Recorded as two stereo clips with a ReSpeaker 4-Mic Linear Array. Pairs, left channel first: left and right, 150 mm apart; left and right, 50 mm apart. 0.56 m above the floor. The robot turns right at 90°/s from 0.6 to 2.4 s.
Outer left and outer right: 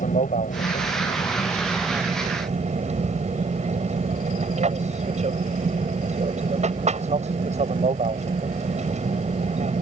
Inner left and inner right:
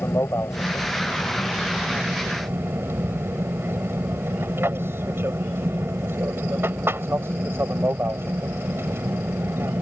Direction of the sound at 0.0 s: 75° left.